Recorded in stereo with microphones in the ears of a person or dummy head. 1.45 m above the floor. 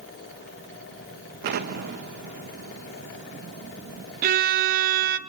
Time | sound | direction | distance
1.4 | an explosion | 40° right (ahead or behind) | 0.9 m
4.2 | a violin | 50° right (ahead or behind) | 0.7 m